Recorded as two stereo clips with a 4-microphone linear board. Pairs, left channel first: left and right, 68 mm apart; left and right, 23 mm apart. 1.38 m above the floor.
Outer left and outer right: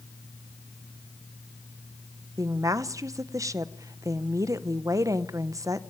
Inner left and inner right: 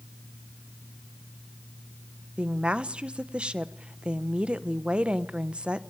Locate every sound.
2.4 s a woman speaking: 50° right (ahead or behind), 0.9 m